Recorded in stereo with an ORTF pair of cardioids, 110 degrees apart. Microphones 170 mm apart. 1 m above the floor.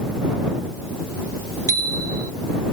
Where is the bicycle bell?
20° right.